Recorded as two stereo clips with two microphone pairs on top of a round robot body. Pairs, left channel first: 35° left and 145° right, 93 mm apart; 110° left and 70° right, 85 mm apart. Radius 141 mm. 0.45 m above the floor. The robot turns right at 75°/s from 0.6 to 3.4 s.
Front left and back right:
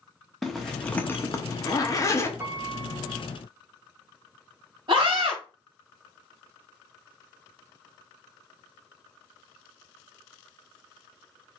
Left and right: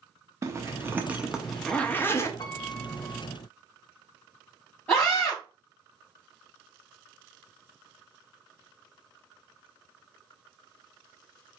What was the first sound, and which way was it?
A zipper, 50° right.